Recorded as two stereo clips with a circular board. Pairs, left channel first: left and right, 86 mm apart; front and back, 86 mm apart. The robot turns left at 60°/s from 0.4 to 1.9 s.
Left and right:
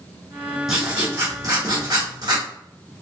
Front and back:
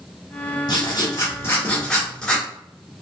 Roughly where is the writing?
Ahead.